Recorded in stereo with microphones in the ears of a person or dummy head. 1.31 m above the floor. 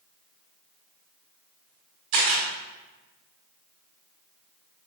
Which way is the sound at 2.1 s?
25° right (ahead or behind).